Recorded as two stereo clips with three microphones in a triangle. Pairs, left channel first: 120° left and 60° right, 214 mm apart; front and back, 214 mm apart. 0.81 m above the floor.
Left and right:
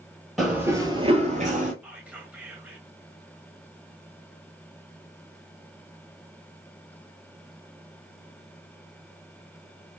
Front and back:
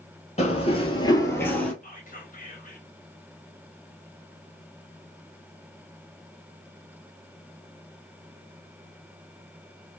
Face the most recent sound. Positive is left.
turn(degrees=20)